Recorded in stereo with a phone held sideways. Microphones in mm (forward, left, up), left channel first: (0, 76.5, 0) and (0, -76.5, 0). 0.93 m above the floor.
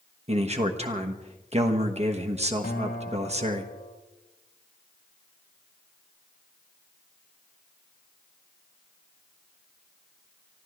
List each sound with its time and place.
0.3 s a man speaking: 45° right (ahead or behind), 1.3 m
2.6 s a guitar: 80° left, 1.5 m